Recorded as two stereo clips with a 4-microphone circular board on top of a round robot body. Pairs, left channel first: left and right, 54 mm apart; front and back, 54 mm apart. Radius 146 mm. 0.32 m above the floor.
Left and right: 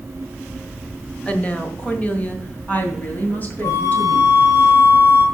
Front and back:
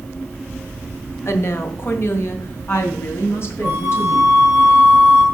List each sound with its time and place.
1.2 s a woman speaking: 25° left, 1.6 m; by 4.5 s 40° left, 4 m
3.6 s a flute: 110° left, 3.5 m